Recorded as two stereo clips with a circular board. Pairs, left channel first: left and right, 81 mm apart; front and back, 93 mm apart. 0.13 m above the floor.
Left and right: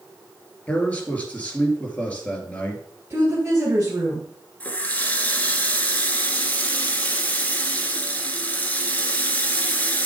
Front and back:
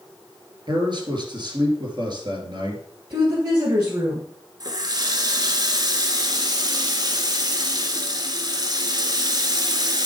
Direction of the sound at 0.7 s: 160° left.